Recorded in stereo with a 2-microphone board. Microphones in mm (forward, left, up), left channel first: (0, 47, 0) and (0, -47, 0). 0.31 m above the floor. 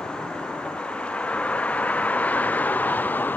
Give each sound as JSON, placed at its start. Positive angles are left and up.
{"t": 0.0, "sound": "a vehicle", "side_deg": 10}